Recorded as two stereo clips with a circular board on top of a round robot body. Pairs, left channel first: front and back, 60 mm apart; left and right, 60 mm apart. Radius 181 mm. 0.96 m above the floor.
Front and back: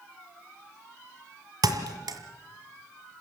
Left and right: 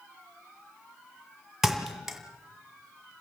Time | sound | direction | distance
1.6 | a thud | 175° right | 1.7 m